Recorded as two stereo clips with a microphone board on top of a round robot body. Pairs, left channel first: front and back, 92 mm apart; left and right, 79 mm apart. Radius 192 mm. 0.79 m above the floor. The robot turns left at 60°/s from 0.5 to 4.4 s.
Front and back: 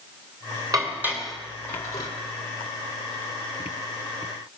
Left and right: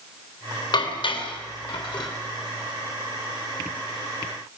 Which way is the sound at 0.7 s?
125° left.